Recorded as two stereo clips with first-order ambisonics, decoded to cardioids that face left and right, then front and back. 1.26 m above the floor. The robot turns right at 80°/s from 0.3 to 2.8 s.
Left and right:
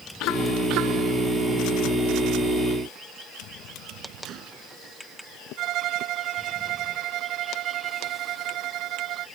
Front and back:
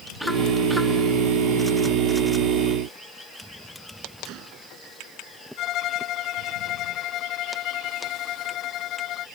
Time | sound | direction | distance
4.2 | a gunshot | 140° right | ?
5.6 | a violin | 50° right | ?